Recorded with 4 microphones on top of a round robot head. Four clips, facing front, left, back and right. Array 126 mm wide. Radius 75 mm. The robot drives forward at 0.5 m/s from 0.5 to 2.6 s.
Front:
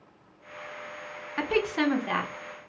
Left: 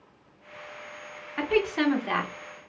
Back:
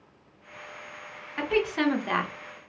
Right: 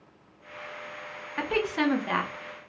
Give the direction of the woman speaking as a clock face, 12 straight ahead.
12 o'clock.